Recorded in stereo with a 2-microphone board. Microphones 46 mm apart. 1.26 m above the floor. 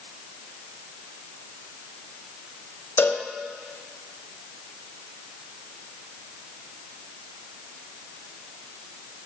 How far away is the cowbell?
About 0.7 m.